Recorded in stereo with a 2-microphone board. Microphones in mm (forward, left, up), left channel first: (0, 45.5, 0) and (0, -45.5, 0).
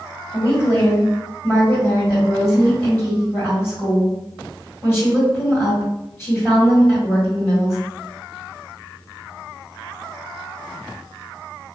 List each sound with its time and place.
0.3 s a woman speaking: 30° left (ahead or behind), 1.8 m